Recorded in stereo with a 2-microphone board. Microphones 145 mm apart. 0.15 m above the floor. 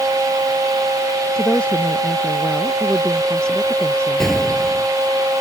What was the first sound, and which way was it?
A woman speaking, 5° left (ahead or behind).